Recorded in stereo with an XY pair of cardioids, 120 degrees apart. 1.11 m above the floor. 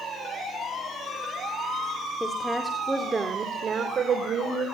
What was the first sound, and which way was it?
A woman speaking, 15° left.